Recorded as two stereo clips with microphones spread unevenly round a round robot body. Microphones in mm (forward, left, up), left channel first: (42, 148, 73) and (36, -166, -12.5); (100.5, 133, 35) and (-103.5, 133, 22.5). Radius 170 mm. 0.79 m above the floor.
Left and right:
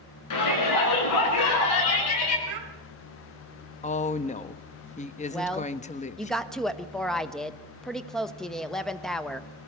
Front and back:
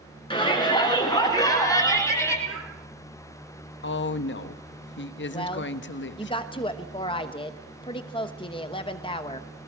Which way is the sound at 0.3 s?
65° left.